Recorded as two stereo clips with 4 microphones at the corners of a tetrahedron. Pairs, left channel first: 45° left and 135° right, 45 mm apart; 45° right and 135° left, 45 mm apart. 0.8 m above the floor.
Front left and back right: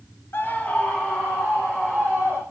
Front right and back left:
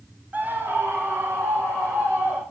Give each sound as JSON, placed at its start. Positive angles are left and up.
{"t": 0.3, "sound": "a scream", "azimuth_deg": 85, "distance_m": 1.1}